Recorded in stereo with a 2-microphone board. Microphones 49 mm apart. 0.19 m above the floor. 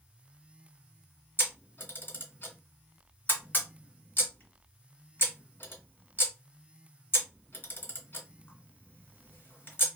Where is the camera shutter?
40° left (ahead or behind), 1.9 m.